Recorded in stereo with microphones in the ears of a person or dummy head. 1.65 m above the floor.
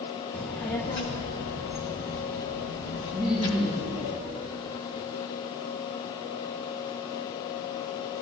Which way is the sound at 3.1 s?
Centre (ahead or behind).